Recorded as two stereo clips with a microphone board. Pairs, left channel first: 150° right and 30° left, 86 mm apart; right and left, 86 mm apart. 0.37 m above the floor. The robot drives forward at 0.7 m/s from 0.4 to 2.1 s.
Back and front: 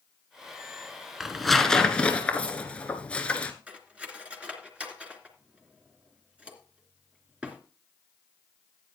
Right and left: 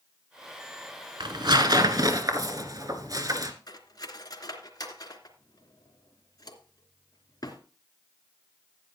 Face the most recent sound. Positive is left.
turn(degrees=-45)